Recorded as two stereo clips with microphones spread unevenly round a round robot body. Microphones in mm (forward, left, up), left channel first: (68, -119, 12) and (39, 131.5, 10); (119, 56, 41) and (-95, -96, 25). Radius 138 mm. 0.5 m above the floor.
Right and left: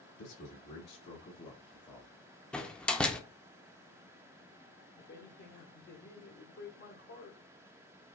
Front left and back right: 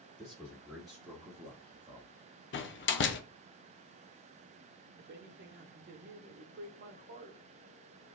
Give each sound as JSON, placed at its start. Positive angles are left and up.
{"t": 0.2, "sound": "a man speaking", "azimuth_deg": -50, "distance_m": 2.0}
{"t": 2.5, "sound": "a door slam", "azimuth_deg": 0, "distance_m": 0.6}
{"t": 5.0, "sound": "a man speaking", "azimuth_deg": -120, "distance_m": 0.9}